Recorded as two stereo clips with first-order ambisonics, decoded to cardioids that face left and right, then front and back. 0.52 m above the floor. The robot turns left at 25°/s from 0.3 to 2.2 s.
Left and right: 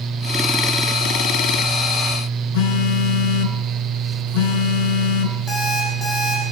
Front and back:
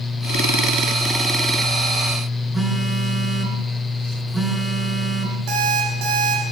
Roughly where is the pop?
I don't hear a pop.